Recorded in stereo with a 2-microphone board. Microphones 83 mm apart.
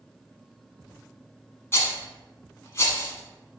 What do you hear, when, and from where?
1.7 s a rattle: 35° left (ahead or behind), 0.7 m